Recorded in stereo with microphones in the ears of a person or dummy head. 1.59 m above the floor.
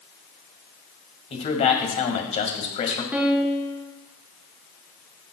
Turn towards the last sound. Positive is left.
turn(degrees=-10)  # may be behind; listen again after turning